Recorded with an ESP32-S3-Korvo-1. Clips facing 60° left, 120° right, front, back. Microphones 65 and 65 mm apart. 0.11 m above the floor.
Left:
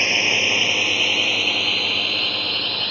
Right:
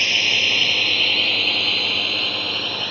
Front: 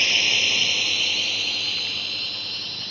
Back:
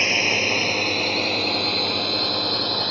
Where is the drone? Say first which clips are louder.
Left 1 dB, back 2 dB; 125° left; by 2.9 s 155° left.